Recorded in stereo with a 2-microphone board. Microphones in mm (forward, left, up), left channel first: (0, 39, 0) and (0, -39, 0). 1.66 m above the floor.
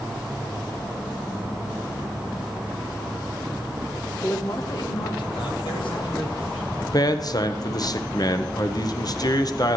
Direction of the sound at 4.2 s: 35° left (ahead or behind).